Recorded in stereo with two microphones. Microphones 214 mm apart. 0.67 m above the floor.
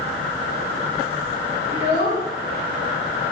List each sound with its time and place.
1.7 s a child speaking: 55° left (ahead or behind), 1.9 m